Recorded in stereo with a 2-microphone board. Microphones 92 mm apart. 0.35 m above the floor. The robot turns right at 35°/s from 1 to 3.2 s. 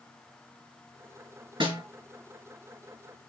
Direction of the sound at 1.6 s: 70° right (ahead or behind).